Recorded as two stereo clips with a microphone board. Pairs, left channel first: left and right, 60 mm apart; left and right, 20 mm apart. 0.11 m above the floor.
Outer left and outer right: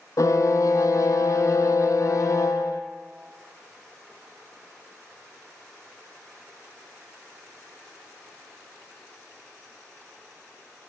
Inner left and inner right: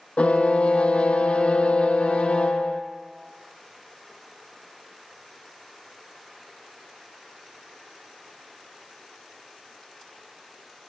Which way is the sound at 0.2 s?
65° left (ahead or behind).